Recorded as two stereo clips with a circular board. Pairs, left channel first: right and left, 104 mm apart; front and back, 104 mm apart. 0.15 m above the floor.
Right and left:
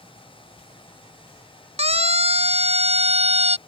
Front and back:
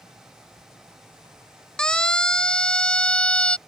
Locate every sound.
1.8 s a siren: 80° left